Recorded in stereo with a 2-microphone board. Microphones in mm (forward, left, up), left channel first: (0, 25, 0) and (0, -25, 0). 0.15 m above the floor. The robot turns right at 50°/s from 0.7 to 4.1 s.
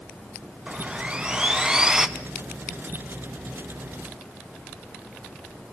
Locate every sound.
0.7 s sawing: 20° right (ahead or behind), 1.1 m; by 2.1 s 10° right (ahead or behind), 1.1 m